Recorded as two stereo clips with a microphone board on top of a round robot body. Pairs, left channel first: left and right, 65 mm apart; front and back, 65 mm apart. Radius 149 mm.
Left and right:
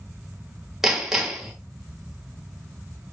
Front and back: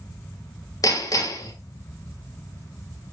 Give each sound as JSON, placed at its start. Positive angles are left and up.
{"t": 0.8, "sound": "hammering", "azimuth_deg": -5, "distance_m": 2.0}